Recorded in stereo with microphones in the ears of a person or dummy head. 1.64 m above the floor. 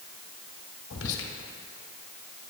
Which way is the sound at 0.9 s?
75° left (ahead or behind).